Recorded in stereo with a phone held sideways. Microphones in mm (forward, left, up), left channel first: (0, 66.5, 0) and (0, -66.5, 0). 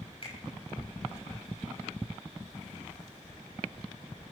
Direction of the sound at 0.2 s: 50° left (ahead or behind).